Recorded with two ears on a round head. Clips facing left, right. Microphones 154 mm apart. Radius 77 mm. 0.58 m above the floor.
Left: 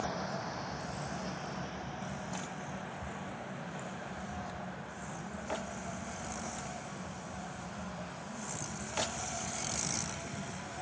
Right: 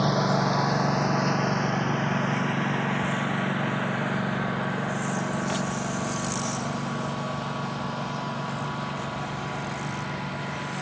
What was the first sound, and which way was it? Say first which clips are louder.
A lawn mower: right 14 dB; 75° right (ahead or behind).